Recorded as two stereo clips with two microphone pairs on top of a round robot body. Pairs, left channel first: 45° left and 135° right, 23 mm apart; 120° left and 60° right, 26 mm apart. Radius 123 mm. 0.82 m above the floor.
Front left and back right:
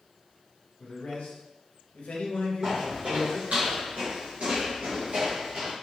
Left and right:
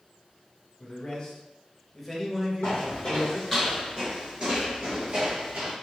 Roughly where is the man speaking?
Left.